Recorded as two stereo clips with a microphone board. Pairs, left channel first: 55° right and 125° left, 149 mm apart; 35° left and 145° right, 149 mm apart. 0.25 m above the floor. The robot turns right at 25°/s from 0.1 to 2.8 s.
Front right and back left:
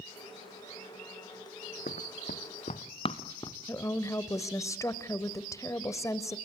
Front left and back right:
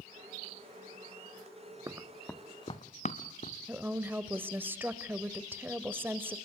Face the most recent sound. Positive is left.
turn(degrees=-90)